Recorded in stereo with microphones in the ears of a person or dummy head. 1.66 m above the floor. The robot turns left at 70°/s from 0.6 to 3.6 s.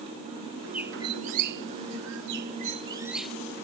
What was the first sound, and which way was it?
A bird, 5° right.